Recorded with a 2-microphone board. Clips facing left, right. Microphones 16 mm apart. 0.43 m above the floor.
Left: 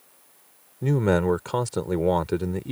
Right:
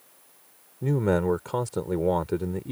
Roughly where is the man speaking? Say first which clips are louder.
Left 2 dB; left.